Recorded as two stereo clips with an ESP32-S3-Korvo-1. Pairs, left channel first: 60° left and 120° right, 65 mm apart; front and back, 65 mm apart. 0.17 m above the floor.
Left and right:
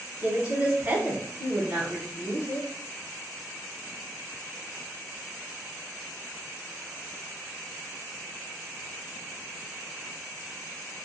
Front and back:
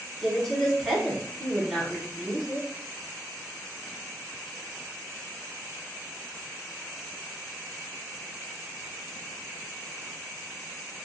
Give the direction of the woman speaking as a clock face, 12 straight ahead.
3 o'clock.